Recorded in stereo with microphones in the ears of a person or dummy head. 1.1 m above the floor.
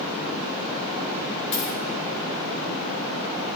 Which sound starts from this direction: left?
A dropped coin, at 1.5 s.